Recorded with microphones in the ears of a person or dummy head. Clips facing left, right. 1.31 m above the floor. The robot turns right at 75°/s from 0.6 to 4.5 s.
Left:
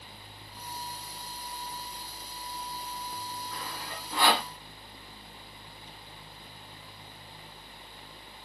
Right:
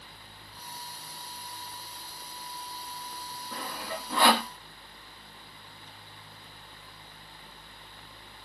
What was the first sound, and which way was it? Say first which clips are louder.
Sawing: right 3 dB; 35° right (ahead or behind).